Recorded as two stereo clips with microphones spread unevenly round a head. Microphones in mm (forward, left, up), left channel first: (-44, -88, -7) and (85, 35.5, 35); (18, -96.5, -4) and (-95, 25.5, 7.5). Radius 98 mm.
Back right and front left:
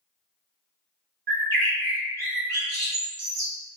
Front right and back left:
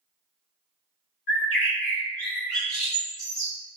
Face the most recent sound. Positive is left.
turn(degrees=15)